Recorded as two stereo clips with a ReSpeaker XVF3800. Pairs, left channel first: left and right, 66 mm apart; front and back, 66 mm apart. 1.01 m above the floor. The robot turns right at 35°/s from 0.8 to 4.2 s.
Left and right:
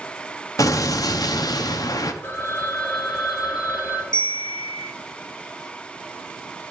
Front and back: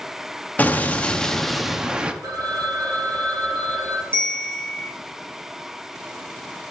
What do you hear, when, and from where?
0.6 s an explosion: 60° left, 0.6 m; by 2.1 s 110° left, 0.6 m
2.2 s a phone ringing: 145° left, 1.2 m; by 4.0 s 150° right, 1.2 m
4.1 s a bell: 130° right, 1.4 m